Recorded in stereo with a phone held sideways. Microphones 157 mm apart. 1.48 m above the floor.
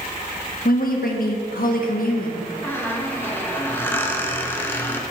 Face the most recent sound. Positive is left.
turn(degrees=15)  # may be behind; listen again after turning